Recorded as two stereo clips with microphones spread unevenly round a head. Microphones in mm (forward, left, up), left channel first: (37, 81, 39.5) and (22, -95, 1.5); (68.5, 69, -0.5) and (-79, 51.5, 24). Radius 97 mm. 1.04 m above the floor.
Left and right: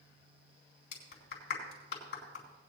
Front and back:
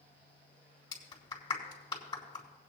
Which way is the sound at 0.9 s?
70° left.